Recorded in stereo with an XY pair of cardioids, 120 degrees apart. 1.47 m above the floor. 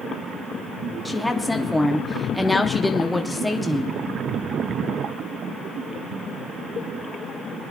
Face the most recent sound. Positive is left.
turn(degrees=5)